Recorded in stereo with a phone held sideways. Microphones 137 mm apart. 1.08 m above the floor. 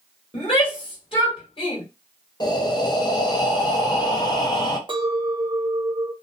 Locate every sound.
0.3 s a shout: 40° left (ahead or behind), 1.5 m
2.4 s breathing: 30° left (ahead or behind), 0.6 m
4.9 s a clink: 35° right (ahead or behind), 0.5 m